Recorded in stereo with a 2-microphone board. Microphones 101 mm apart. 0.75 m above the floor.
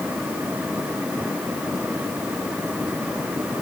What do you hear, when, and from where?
Only background noise.